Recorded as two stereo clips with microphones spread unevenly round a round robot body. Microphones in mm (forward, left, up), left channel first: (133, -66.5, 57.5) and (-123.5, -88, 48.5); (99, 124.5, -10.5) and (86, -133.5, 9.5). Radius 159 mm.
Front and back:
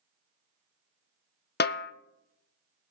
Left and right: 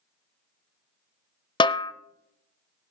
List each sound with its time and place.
1.6 s a snare drum: 30° left, 0.7 m